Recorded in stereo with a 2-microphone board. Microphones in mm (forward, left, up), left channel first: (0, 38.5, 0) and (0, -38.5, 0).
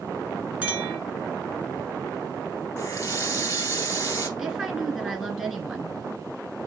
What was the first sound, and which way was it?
A clink, 20° right (ahead or behind).